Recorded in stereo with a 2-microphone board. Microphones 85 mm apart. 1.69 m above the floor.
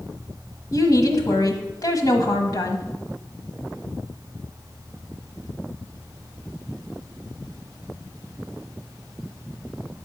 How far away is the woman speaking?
About 1.2 m.